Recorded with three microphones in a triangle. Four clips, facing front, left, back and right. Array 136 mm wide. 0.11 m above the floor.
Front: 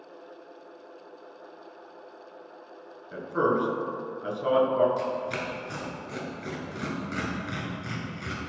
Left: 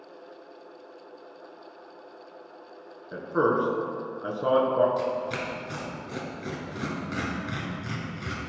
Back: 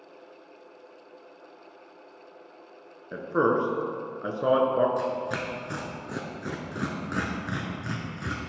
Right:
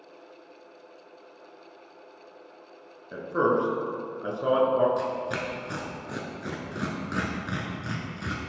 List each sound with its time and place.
3.1 s a man speaking: 175° left, 1.2 m
5.0 s tearing paper: 145° right, 1.1 m